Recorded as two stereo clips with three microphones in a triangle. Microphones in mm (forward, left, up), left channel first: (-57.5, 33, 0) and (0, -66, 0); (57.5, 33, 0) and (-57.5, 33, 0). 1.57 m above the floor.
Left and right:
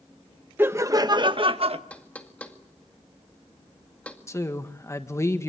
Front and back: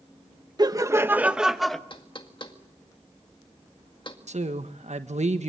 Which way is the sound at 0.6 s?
130° right.